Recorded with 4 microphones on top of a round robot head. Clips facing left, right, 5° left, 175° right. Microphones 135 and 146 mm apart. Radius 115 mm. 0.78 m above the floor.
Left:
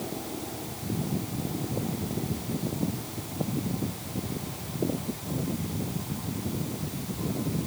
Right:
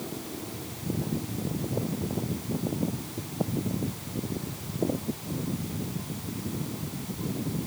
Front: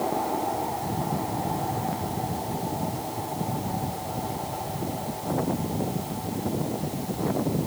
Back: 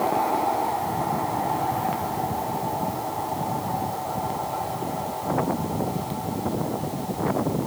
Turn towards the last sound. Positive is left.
No sound to turn to.